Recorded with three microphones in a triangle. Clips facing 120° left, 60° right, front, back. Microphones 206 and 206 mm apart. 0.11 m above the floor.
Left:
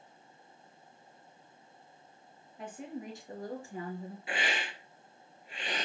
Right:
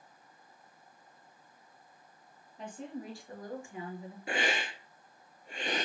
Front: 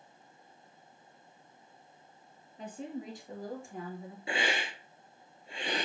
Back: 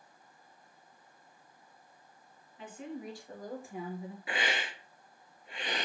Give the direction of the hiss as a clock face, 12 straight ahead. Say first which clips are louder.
Right 4 dB, front 3 dB; 2 o'clock.